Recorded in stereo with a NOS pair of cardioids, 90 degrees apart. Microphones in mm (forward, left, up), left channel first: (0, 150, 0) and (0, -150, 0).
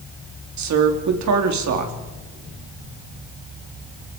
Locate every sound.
0.6 s a woman speaking: 60° right, 4 m